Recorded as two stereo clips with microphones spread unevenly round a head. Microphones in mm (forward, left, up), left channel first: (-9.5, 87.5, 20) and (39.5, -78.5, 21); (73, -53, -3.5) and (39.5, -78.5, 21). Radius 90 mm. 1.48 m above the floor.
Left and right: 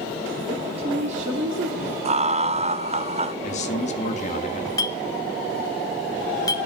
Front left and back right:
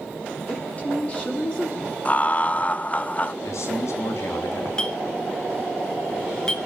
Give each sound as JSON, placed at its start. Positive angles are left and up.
{"t": 0.5, "sound": "a woman speaking", "azimuth_deg": -10, "distance_m": 3.5}
{"t": 2.0, "sound": "laughter", "azimuth_deg": -20, "distance_m": 1.0}
{"t": 3.4, "sound": "a man speaking", "azimuth_deg": 55, "distance_m": 2.5}
{"t": 4.8, "sound": "a clink", "azimuth_deg": 155, "distance_m": 0.7}